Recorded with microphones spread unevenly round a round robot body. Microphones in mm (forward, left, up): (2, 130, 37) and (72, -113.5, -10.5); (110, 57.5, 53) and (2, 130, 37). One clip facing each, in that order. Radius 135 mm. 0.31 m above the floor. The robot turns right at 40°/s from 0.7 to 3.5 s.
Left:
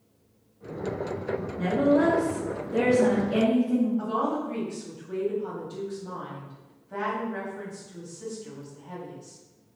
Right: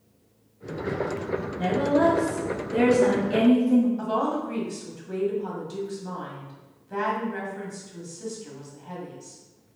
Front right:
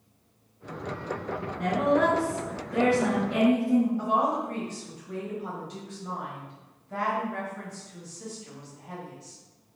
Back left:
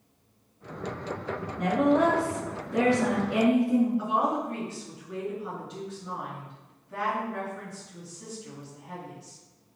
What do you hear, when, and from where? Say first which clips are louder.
1.6 s a woman speaking: left 1 dB, back left 1 dB; 160° right, 1.4 m; by 3.9 s 85° right, 1.4 m
4.0 s a woman speaking: right 1 dB, front right 1 dB; 75° right, 1.6 m